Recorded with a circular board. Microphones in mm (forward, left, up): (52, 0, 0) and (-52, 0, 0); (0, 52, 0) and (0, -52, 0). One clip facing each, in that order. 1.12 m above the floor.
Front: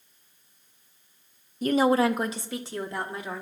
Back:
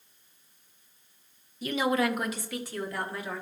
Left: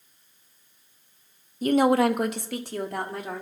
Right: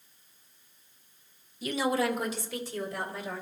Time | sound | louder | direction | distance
1.6 | a woman speaking | front 6 dB, left 9 dB | 45° left | 0.6 m